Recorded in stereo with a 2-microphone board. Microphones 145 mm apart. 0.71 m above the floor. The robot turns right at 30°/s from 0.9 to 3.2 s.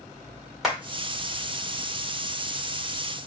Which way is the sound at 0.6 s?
Centre (ahead or behind).